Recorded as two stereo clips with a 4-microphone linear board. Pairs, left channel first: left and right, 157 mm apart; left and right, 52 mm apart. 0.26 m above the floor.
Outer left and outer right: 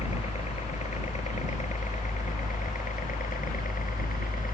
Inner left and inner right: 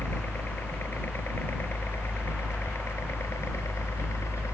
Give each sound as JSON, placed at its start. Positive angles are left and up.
{"t": 0.0, "sound": "a helicopter", "side_deg": 45}